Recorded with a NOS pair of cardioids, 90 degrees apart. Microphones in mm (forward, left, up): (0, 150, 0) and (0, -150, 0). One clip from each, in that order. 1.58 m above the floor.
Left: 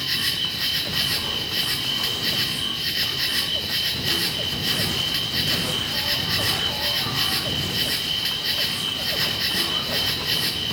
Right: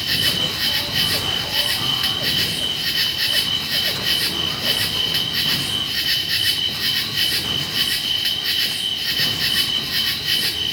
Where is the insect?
25° right, 4 m.